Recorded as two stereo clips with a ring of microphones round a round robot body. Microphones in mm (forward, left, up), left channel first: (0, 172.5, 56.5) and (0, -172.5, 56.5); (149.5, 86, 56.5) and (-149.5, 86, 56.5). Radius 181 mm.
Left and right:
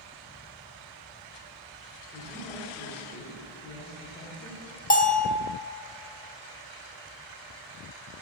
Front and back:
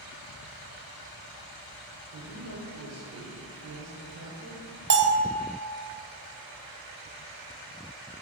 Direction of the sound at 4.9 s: 145° left.